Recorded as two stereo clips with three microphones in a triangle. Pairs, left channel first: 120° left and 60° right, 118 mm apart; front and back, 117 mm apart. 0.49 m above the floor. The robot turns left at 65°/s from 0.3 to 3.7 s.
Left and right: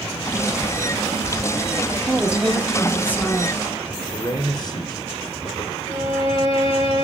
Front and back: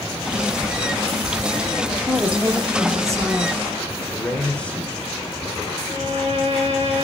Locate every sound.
2.0 s a woman speaking: 115° right, 1.0 m; by 3.6 s 140° left, 1.0 m
4.1 s a man speaking: 75° left, 1.4 m
5.8 s a violin: 155° left, 3.5 m